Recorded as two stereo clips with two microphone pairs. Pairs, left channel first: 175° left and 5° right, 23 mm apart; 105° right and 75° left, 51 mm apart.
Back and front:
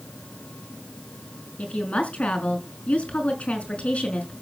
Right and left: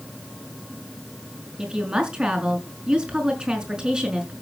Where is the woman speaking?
145° left, 5 m.